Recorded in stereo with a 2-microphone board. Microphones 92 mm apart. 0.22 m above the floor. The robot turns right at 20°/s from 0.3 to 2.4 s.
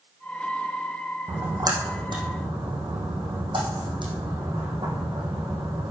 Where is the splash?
40° right (ahead or behind), 3 m; by 5.9 s 60° right (ahead or behind), 3 m.